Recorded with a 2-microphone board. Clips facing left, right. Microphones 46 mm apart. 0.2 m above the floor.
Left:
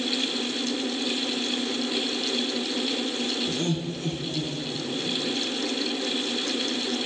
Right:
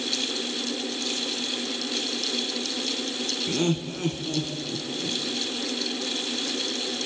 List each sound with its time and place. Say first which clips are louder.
3.5 s laughter: right 2 dB; 45° right (ahead or behind), 1.8 m; by 5.2 s 55° right (ahead or behind), 2.5 m